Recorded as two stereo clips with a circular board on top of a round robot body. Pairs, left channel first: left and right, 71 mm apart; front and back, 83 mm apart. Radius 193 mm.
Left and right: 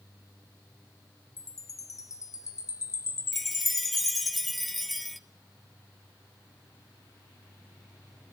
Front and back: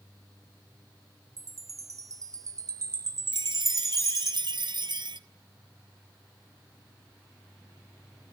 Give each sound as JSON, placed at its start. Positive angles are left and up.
{"t": 1.4, "sound": "a chime", "azimuth_deg": 130, "distance_m": 1.2}
{"t": 3.3, "sound": "a chime", "azimuth_deg": 175, "distance_m": 0.8}